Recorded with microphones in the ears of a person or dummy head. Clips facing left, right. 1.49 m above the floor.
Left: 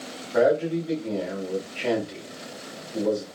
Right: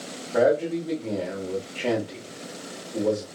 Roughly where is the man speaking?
Centre.